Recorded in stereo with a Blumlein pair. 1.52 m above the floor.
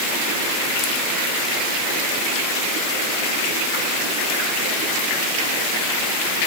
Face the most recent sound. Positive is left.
No sound to turn to.